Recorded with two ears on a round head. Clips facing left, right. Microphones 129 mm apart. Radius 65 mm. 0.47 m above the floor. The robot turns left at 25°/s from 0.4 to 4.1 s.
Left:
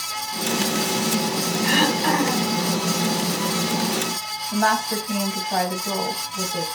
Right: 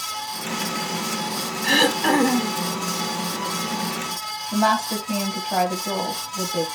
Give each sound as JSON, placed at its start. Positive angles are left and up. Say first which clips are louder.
{"t": 1.6, "sound": "throat clearing", "louder": "right 2 dB", "side_deg": -45, "distance_m": 1.3}
{"t": 4.5, "sound": "a woman speaking", "louder": "right 1 dB", "side_deg": -5, "distance_m": 2.5}